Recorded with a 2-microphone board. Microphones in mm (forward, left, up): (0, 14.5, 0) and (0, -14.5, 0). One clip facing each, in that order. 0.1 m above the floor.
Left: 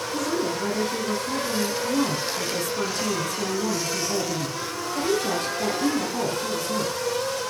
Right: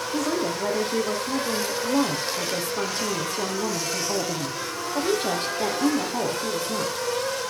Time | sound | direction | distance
0.1 | a woman speaking | 35° right (ahead or behind) | 3.5 m